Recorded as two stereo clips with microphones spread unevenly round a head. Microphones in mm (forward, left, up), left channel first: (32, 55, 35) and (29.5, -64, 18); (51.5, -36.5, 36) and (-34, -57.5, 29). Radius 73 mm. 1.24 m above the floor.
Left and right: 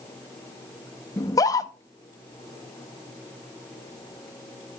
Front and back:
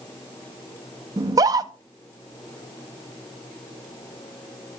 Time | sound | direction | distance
1.2 | a scream | 155° left | 0.6 m